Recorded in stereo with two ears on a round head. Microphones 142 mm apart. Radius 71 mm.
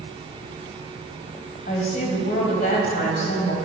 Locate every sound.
1.7 s a woman speaking: 50° left (ahead or behind), 2.5 m